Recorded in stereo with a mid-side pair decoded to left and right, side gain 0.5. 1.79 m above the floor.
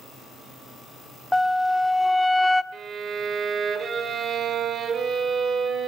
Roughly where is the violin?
Ahead right.